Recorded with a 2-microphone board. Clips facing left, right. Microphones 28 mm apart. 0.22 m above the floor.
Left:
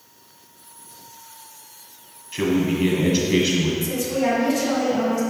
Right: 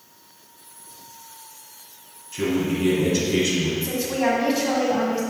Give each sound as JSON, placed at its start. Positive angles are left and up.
{"t": 2.3, "sound": "a man speaking", "side_deg": 30, "distance_m": 1.4}
{"t": 3.8, "sound": "a woman speaking", "side_deg": -25, "distance_m": 1.6}